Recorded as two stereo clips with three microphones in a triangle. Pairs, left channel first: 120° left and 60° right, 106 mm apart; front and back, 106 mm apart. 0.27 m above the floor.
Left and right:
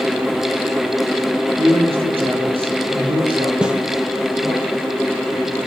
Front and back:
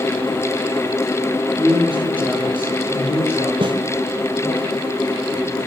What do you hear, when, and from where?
1.6 s a man speaking: 40° right, 8.5 m; by 4.6 s 15° right, 8 m
3.6 s a snare drum: 140° right, 3 m